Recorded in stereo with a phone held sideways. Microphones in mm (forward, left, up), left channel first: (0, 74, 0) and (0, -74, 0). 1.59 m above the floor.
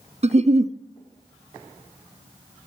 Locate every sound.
0.2 s a giggle: 50° right (ahead or behind), 0.5 m